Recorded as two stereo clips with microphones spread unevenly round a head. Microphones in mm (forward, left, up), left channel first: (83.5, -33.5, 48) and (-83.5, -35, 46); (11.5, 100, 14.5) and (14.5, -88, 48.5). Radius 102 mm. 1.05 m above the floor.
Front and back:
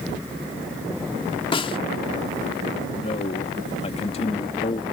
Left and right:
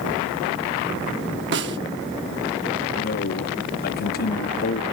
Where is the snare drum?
60° right.